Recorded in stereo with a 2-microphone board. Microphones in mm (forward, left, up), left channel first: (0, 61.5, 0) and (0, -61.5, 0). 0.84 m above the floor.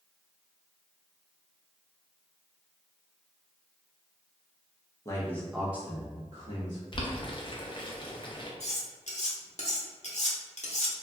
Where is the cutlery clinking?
70° left (ahead or behind), 0.8 m.